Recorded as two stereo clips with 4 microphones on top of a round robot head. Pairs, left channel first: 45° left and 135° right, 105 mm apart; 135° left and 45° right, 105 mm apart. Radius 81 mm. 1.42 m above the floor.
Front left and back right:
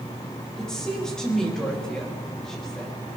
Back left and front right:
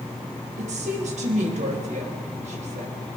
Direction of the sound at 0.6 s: 40° right.